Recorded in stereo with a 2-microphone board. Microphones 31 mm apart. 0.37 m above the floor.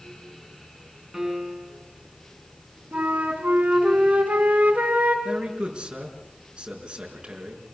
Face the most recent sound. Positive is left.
turn(degrees=-30)  # may be behind; listen again after turning